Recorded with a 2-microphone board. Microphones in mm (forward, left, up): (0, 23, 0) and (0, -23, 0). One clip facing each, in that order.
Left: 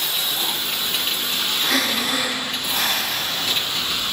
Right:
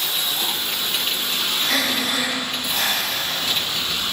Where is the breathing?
5° left (ahead or behind), 1.8 m.